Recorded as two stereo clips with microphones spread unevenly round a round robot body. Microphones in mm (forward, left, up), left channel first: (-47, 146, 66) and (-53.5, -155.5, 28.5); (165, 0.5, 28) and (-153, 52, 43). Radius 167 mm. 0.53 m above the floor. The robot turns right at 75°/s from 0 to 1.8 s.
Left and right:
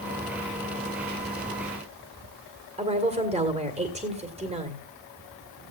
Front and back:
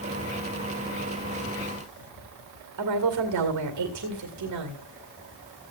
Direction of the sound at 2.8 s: 155° right.